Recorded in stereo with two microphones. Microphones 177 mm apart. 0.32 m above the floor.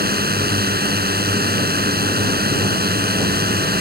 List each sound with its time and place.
0.0 s a drone: 65° right (ahead or behind)